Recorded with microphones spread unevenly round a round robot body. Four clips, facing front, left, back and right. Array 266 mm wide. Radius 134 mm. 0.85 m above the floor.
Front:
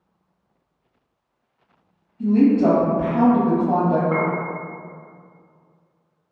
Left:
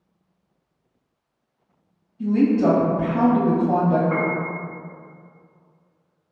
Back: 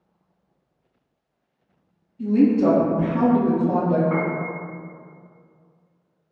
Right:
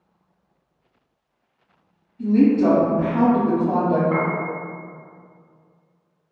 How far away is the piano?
About 1.6 m.